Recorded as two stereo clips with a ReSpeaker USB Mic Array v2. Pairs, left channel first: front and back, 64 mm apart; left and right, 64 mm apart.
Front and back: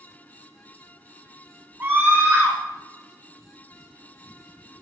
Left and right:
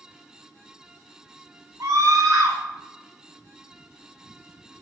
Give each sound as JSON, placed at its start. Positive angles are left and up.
{"t": 1.8, "sound": "a scream", "azimuth_deg": -125, "distance_m": 2.0}